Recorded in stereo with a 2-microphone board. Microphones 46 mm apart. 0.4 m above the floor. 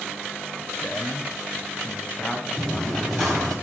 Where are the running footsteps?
5° left (ahead or behind), 7.5 m.